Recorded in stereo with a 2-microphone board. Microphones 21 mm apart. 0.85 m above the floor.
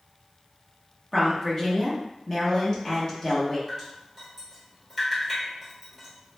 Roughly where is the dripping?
Centre.